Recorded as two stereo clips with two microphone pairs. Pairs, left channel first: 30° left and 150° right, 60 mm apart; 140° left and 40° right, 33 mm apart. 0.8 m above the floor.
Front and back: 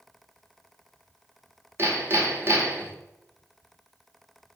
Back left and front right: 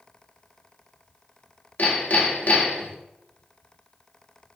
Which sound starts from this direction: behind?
Hammering, at 1.8 s.